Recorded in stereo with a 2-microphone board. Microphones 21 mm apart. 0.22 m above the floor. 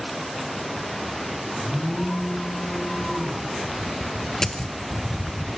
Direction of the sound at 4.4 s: 30° left (ahead or behind).